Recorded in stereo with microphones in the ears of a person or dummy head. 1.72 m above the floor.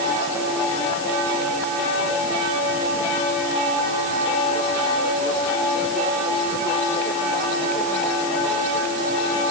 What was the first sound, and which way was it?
Only background noise.